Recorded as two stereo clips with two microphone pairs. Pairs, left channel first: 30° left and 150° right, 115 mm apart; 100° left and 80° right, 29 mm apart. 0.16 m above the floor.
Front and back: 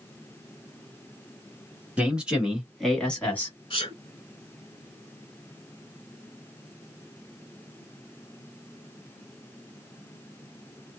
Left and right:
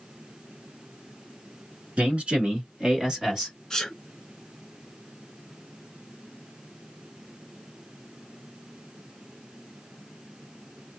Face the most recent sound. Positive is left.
turn(degrees=25)